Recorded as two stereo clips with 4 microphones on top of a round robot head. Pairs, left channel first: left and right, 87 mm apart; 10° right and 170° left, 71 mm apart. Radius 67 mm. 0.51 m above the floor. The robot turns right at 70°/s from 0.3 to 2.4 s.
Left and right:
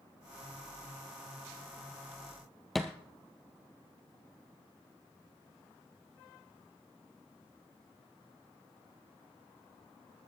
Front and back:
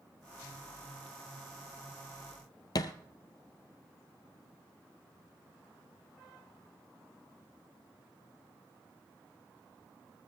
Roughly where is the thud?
Ahead.